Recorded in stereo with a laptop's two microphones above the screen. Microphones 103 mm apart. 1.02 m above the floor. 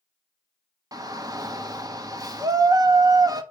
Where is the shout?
35° right (ahead or behind), 1.3 m.